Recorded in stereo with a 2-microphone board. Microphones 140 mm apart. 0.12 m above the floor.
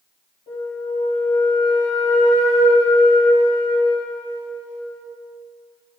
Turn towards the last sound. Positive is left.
turn(degrees=50)  # may be behind; listen again after turning